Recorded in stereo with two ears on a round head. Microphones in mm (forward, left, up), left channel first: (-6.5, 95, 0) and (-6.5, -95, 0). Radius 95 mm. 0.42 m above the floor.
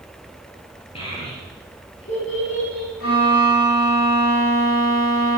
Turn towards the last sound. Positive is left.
turn(degrees=85)